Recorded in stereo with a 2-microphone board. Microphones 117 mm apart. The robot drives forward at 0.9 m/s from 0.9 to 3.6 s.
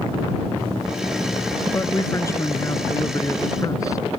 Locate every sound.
1.7 s a man speaking: 25° left (ahead or behind); by 4.0 s 30° left (ahead or behind)